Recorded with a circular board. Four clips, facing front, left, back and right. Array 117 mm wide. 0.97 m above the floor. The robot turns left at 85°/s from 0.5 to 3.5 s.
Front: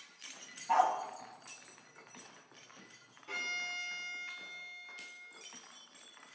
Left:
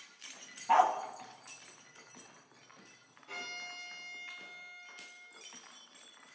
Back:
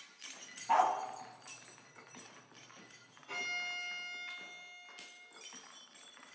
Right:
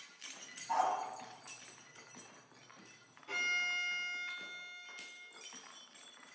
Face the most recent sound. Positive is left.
turn(degrees=-40)